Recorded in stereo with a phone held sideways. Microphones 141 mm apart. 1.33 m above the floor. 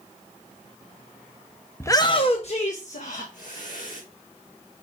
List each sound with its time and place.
1.8 s a shout: 15° left (ahead or behind), 0.6 m; by 4.0 s 70° left (ahead or behind), 2 m